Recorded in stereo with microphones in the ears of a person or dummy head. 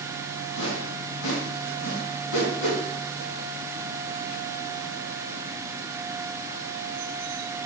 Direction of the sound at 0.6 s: 75° left (ahead or behind).